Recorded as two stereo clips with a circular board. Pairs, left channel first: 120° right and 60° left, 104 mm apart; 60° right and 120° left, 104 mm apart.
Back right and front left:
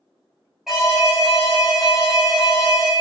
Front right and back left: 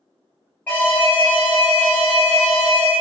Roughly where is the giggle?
I don't hear a giggle.